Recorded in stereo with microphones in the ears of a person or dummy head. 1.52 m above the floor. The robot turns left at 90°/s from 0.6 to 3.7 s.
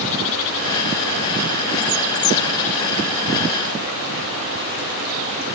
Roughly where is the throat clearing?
I don't hear throat clearing.